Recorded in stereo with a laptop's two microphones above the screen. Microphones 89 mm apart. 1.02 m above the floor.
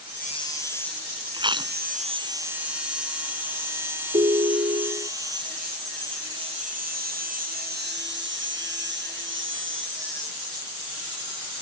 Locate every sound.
1.3 s chewing: 60° right (ahead or behind)
4.1 s a ringtone: 85° right